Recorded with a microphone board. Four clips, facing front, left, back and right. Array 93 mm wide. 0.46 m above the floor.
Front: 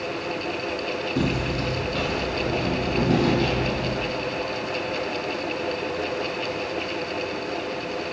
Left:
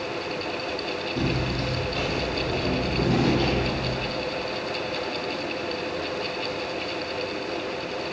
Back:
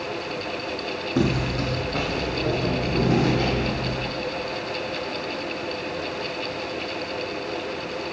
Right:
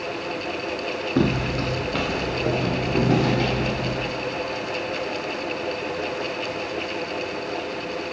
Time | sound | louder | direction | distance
1.2 | footsteps | right 6 dB, back 3 dB | 115° right | 1.0 m